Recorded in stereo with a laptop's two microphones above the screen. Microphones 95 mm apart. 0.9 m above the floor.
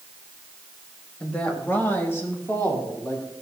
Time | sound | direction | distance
1.2 | a woman speaking | 10° left (ahead or behind) | 1.4 m